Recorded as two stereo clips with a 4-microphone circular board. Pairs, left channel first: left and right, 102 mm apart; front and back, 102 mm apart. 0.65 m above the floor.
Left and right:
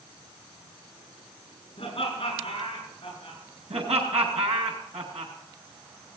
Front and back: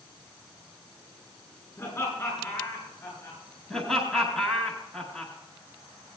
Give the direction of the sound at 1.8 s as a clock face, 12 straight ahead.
10 o'clock.